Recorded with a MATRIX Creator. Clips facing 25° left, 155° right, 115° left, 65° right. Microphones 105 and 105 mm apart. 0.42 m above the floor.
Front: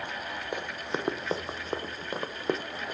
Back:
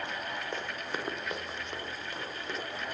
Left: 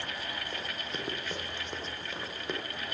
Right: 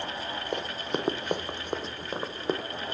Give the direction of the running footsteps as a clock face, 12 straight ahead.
2 o'clock.